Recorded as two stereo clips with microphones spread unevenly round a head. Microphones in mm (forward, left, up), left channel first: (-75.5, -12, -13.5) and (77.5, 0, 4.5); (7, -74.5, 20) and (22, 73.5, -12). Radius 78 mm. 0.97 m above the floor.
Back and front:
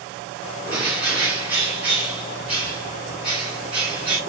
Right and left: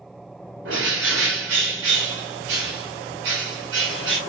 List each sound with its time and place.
0.7 s a bird: 85° left, 1.2 m